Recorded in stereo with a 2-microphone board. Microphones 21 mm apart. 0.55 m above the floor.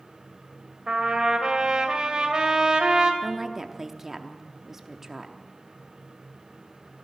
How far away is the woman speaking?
About 0.8 m.